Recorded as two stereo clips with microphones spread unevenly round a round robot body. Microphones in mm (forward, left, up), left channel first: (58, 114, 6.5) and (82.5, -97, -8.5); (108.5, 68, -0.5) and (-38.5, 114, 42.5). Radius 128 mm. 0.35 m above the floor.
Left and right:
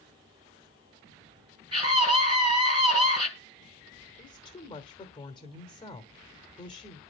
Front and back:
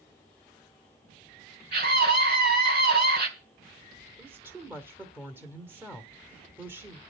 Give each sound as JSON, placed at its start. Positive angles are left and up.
{"t": 1.7, "sound": "a scream", "azimuth_deg": -150, "distance_m": 3.5}
{"t": 4.2, "sound": "a woman speaking", "azimuth_deg": 65, "distance_m": 1.3}